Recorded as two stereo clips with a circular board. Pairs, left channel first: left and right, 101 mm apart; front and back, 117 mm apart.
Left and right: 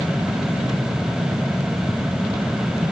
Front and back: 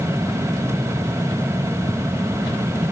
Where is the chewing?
No chewing in this recording.